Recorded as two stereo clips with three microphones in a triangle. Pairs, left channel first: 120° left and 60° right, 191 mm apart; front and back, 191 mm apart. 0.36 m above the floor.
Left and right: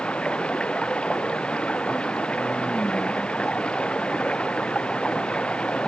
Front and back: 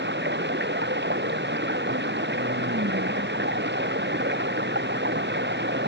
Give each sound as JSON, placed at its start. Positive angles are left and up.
{"t": 0.0, "sound": "running water", "azimuth_deg": -155}